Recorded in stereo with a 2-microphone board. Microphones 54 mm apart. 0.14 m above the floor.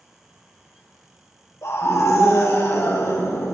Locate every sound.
1.6 s a scream: 65° left (ahead or behind), 4 m; by 3.5 s 70° left (ahead or behind), 4 m